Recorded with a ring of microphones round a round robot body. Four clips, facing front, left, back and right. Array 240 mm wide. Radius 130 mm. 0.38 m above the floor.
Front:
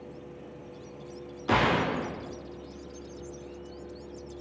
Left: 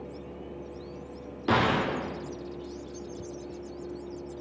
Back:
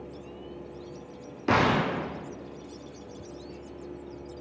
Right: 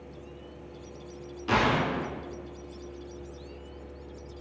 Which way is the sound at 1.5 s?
145° left.